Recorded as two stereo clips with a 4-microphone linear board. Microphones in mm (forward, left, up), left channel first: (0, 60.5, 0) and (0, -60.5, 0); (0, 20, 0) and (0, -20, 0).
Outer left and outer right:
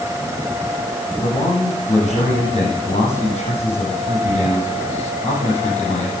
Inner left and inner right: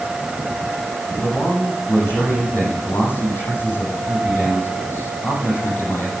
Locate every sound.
1.2 s a man speaking: 75° left (ahead or behind), 6.5 m